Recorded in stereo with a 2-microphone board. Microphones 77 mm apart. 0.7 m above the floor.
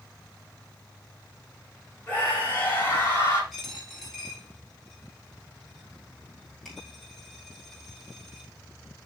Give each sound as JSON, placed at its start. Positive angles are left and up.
{"t": 2.1, "sound": "a scream", "side_deg": 25, "distance_m": 5.5}
{"t": 3.5, "sound": "a dropped coin", "side_deg": 5, "distance_m": 5.0}